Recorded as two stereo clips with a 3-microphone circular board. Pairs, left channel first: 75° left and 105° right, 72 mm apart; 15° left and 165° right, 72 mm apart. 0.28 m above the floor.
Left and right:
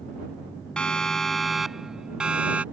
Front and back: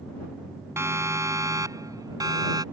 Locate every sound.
0.8 s a siren: 150° left; by 2.6 s 175° right